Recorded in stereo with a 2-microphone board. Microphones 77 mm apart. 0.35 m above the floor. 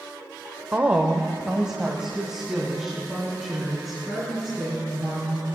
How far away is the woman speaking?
About 0.8 m.